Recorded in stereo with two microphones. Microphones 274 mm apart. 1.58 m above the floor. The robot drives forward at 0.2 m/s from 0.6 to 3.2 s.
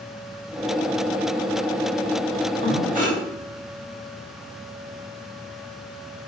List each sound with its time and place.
2.6 s breathing: 30° right (ahead or behind), 1.5 m; by 3.2 s 25° right (ahead or behind), 1.6 m